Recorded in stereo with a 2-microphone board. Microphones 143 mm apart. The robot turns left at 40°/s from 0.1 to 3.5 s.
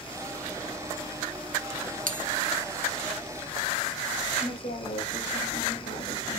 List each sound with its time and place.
2.1 s a bell: 75° right (ahead or behind), 0.9 m; by 2.2 s 65° right (ahead or behind), 0.9 m
4.4 s a woman speaking: 50° left (ahead or behind), 4 m